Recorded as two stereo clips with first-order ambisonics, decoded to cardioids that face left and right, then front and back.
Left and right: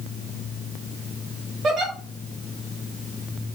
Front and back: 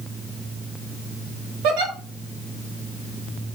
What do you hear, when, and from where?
1.6 s a giggle: 155° right, 0.8 m